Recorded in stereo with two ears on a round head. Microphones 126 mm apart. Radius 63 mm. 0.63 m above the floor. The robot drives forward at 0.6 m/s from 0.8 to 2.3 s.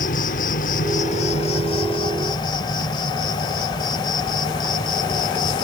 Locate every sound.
0.0 s an insect: 60° left (ahead or behind); by 5.6 s 30° left (ahead or behind)